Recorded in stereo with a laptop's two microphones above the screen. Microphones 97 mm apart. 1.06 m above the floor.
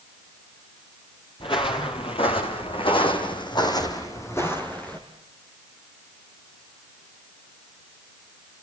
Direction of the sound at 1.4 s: 60° left (ahead or behind).